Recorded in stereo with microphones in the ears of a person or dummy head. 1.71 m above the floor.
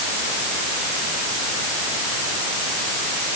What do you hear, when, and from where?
Only background noise.